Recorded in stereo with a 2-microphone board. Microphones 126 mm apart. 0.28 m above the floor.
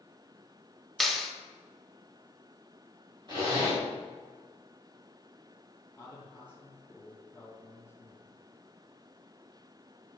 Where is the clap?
Centre (ahead or behind), 1.0 m.